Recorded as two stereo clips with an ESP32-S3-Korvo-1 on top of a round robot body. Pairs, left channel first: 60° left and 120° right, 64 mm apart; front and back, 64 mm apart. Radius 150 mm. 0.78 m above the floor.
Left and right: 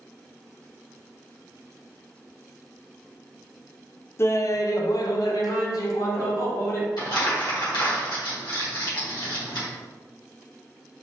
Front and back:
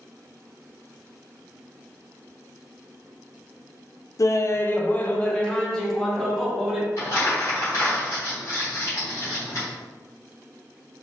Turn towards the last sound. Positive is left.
turn(degrees=50)